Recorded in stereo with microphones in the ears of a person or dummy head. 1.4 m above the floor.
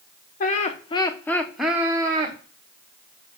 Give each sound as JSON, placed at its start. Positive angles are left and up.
{"t": 0.4, "sound": "laughter", "side_deg": 50, "distance_m": 0.8}